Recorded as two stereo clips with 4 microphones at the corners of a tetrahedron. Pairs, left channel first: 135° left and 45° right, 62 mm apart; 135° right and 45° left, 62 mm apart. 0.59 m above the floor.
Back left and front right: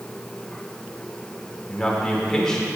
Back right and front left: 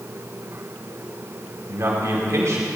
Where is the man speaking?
55° left, 2 m.